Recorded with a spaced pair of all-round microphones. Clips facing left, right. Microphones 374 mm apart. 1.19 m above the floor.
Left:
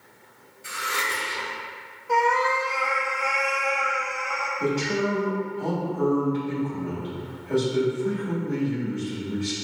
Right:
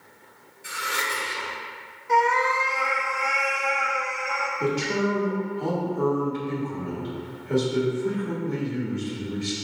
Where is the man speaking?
20° right (ahead or behind), 1.6 m.